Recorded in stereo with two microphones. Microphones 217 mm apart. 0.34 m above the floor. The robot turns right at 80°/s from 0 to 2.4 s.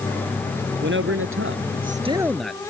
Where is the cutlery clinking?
No cutlery clinking in this recording.